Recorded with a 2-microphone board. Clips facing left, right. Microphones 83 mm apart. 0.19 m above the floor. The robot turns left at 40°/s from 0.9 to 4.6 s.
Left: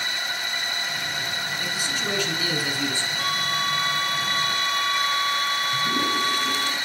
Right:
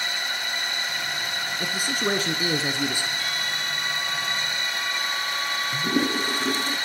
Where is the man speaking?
105° right, 1.8 m; by 3.1 s 165° right, 1.8 m.